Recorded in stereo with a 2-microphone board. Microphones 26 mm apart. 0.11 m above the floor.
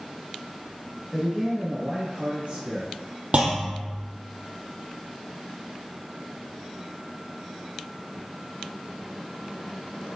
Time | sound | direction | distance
1.1 | a man speaking | 20° left (ahead or behind) | 1.1 m
3.3 | a clunk | 55° right (ahead or behind) | 1.1 m